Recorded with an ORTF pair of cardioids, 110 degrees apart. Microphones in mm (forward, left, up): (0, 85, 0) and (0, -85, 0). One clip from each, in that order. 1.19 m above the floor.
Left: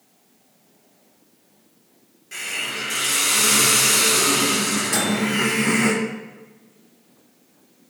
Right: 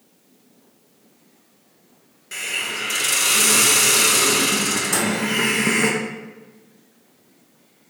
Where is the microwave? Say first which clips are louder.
Even; 20° right, 1.8 m.